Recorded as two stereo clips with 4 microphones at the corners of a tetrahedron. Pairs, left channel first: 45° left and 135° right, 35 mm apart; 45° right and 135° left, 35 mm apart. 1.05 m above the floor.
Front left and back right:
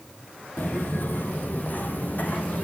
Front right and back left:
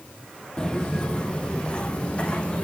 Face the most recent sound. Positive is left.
turn(degrees=15)